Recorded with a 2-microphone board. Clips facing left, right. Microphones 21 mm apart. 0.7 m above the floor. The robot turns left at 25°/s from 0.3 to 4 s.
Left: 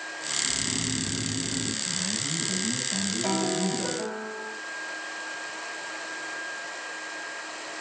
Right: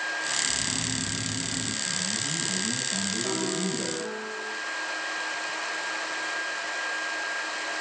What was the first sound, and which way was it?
Snoring, 145° left.